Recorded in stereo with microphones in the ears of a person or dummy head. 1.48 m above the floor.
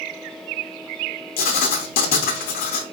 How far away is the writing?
About 0.6 m.